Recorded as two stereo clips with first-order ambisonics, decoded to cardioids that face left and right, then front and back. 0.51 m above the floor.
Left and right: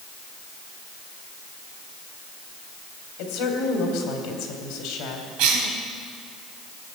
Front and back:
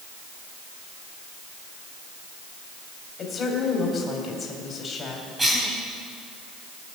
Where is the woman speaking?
65° left, 2.5 m.